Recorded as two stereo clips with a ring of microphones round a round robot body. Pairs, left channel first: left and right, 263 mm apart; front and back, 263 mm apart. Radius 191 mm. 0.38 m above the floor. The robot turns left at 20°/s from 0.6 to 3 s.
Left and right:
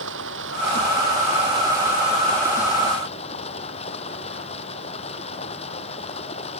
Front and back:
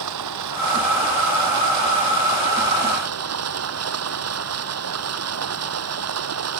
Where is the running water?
150° right; by 6.6 s 165° left.